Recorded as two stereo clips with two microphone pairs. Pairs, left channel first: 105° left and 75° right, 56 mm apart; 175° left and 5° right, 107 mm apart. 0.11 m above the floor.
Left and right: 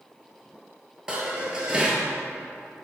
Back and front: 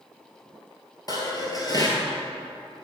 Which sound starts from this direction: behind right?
Dishes clattering, at 1.1 s.